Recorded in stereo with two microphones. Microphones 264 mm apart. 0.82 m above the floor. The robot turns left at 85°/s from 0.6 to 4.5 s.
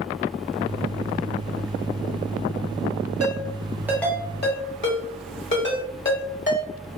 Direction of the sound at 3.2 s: 60° right (ahead or behind).